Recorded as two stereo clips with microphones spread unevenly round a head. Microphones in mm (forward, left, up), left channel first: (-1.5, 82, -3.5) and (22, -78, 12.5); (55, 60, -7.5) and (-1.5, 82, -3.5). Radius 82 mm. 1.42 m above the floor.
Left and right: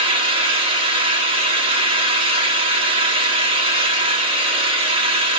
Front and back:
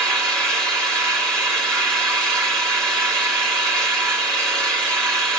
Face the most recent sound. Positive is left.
turn(degrees=-140)